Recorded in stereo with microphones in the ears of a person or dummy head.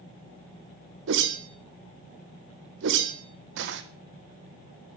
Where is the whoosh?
65° right (ahead or behind), 1.3 m.